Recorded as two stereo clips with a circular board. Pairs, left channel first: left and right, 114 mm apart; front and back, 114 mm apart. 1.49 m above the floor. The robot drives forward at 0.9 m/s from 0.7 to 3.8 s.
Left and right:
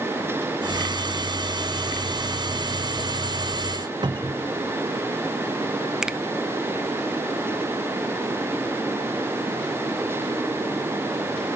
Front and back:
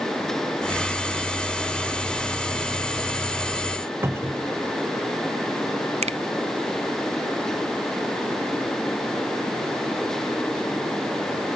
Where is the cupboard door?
120° right, 0.7 m.